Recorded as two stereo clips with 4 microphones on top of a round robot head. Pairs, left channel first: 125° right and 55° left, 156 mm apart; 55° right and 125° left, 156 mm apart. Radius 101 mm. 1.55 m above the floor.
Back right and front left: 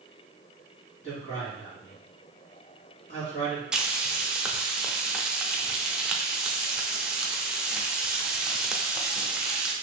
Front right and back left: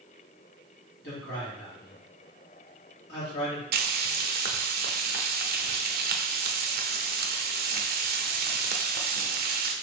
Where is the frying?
140° left, 0.5 m.